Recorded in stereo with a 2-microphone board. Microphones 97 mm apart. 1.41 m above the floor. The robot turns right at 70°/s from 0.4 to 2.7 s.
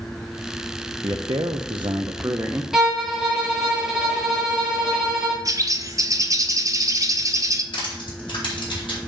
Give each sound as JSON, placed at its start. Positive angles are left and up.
{"t": 1.0, "sound": "a man speaking", "azimuth_deg": -130, "distance_m": 0.7}
{"t": 2.7, "sound": "a violin", "side_deg": -5, "distance_m": 2.0}
{"t": 5.5, "sound": "a bird", "side_deg": -40, "distance_m": 0.7}
{"t": 7.7, "sound": "crushing", "side_deg": 65, "distance_m": 4.0}